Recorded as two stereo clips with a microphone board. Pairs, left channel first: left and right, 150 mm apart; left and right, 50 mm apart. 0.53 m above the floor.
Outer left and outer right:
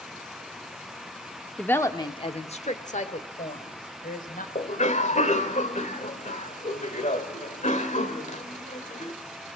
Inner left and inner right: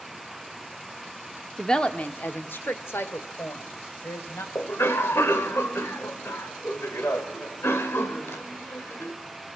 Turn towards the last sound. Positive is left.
turn(degrees=60)  # may be behind; listen again after turning